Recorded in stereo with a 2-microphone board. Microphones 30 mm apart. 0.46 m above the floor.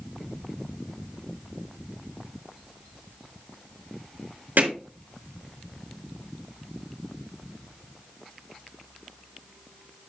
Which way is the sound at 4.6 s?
80° right.